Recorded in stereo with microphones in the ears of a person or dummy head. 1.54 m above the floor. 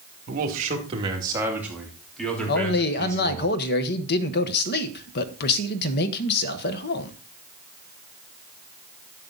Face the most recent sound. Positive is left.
turn(degrees=55)  # may be behind; listen again after turning